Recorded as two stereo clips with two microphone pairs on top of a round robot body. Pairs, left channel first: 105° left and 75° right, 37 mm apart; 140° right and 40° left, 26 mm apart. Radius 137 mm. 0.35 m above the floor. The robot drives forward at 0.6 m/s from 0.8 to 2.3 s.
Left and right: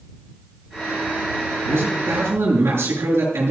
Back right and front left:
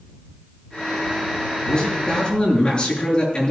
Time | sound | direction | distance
1.7 | a man speaking | 80° right | 7 m